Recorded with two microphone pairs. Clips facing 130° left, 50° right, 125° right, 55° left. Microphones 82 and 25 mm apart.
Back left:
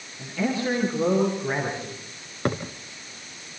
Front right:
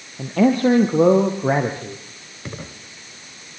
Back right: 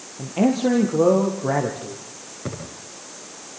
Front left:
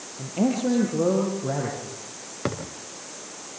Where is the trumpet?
I don't hear a trumpet.